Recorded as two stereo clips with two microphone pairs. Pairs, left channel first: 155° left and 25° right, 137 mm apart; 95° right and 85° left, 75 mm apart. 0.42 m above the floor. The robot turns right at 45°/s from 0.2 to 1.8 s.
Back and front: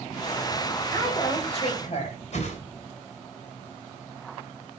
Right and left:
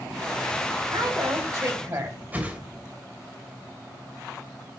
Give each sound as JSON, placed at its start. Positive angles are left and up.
{"t": 0.9, "sound": "a woman speaking", "azimuth_deg": 90, "distance_m": 3.0}
{"t": 2.3, "sound": "a whoosh", "azimuth_deg": 150, "distance_m": 1.8}